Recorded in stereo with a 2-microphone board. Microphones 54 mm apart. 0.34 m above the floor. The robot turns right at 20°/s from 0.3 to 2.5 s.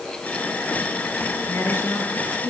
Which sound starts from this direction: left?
A woman speaking, at 1.5 s.